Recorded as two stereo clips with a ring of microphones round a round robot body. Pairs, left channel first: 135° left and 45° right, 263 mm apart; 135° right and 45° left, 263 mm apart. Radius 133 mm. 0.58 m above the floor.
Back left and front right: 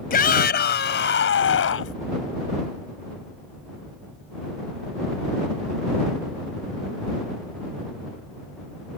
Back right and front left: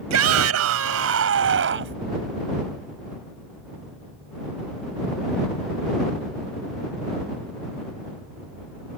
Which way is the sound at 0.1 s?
75° left.